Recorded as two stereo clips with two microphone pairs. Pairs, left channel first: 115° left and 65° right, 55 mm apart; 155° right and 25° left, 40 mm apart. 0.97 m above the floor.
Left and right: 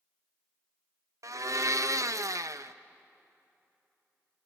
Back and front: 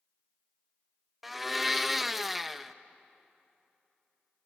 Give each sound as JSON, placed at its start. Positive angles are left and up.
{"t": 1.2, "sound": "a blender", "azimuth_deg": -60, "distance_m": 0.5}